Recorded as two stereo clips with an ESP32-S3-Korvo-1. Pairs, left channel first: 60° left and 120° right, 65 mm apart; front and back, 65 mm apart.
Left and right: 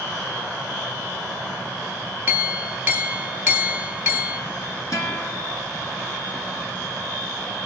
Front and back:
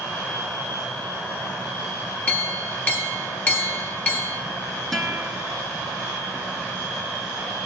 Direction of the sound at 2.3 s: 65° right.